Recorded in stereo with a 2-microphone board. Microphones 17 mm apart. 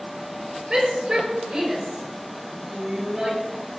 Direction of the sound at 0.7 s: 45° right (ahead or behind).